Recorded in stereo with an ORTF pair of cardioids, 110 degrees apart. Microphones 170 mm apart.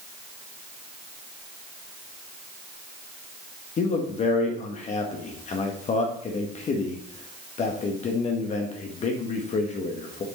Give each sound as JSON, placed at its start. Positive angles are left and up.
{"t": 3.8, "sound": "a man speaking", "azimuth_deg": 45, "distance_m": 1.3}